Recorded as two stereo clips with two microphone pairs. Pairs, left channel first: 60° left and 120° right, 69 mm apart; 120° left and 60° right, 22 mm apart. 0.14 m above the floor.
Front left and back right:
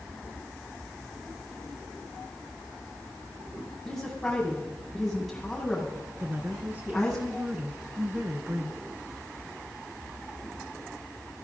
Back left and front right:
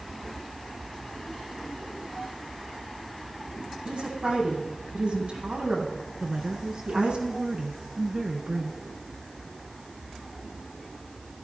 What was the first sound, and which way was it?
A woman speaking, 30° right.